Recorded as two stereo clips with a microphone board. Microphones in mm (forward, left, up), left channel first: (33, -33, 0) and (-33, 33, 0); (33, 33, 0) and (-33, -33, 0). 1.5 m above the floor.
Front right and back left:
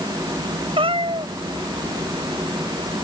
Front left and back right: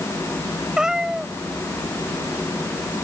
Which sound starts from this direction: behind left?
A cat meowing, at 0.8 s.